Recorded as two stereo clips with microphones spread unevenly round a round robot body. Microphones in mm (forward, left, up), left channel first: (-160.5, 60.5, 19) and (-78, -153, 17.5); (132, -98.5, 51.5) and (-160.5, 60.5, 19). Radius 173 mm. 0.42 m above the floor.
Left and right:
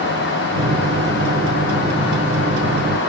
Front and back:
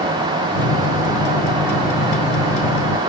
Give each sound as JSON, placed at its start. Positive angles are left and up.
{"t": 0.6, "sound": "a microwave", "azimuth_deg": -40, "distance_m": 1.5}